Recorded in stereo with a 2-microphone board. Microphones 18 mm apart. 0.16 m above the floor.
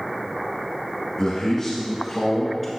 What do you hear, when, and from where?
1.2 s a man speaking: 30° left (ahead or behind), 1.5 m; by 2.7 s 5° left (ahead or behind), 1.8 m